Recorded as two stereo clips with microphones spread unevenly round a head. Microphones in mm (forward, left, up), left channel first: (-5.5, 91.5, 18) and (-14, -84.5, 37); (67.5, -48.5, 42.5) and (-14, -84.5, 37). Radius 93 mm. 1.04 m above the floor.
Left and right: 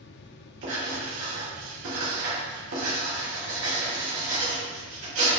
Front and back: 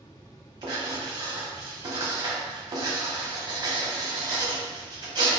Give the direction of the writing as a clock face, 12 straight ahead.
4 o'clock.